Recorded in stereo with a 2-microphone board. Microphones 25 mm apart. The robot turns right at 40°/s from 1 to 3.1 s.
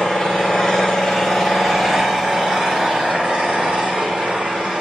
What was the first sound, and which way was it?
An engine running, 155° left.